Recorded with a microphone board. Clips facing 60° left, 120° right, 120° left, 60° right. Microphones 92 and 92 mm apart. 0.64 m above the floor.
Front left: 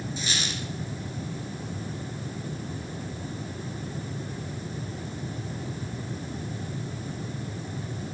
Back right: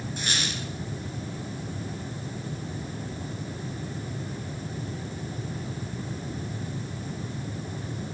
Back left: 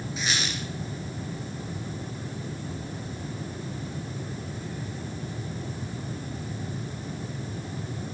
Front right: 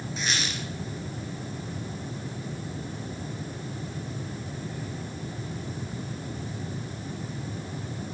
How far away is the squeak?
About 2.5 m.